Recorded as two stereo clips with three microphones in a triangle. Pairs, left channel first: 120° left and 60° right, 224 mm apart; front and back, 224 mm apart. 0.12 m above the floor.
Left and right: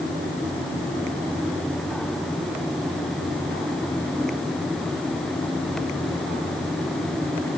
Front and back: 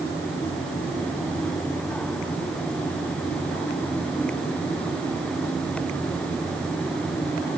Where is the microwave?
No microwave in this recording.